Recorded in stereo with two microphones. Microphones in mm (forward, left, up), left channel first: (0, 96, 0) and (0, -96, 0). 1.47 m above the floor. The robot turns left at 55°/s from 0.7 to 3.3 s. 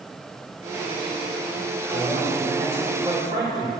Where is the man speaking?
80° right, 3.5 m; by 3.7 s 160° right, 3.5 m.